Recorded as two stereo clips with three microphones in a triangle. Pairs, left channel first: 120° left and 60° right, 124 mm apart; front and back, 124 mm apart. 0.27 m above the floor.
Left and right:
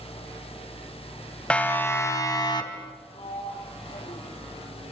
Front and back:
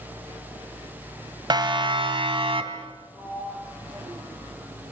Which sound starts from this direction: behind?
A siren, at 1.5 s.